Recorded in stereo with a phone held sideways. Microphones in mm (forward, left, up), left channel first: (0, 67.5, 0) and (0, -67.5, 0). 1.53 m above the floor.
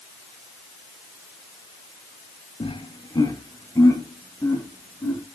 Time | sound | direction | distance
2.6 | laughter | 40° left (ahead or behind) | 0.9 m